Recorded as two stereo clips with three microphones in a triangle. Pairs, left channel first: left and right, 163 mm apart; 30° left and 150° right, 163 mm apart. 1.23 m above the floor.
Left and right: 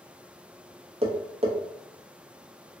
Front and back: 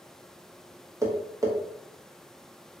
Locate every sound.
1.0 s tapping: 90° right, 0.7 m